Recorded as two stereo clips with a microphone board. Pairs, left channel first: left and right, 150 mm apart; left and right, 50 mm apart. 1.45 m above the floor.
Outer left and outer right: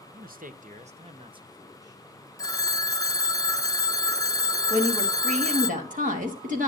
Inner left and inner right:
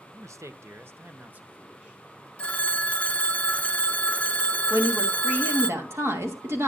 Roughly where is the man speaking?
Right.